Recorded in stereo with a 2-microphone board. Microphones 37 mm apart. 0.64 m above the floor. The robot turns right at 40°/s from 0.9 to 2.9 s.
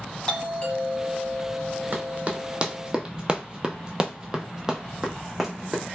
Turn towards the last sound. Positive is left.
turn(degrees=-5)  # may be behind; listen again after turning